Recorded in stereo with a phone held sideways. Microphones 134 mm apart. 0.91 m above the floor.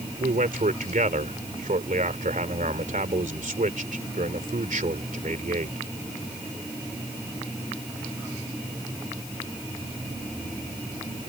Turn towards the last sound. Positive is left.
turn(degrees=-80)